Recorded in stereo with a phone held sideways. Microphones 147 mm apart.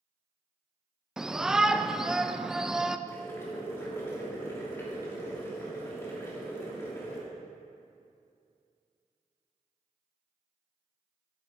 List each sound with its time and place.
1.2 s a shout: 5° right (ahead or behind), 0.5 m
3.1 s boiling: 20° left (ahead or behind), 2.5 m